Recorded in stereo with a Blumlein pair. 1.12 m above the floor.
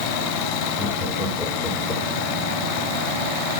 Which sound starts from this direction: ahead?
Laughter, at 0.8 s.